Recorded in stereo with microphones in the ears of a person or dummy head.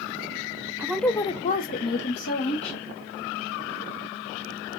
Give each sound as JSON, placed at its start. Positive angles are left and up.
{"t": 0.8, "sound": "a woman speaking", "side_deg": -15, "distance_m": 0.5}